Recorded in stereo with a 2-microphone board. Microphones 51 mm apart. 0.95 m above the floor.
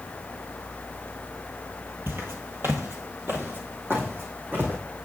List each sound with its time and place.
2.1 s footsteps: 45° right (ahead or behind), 1.4 m; by 4.8 s 40° right (ahead or behind), 3 m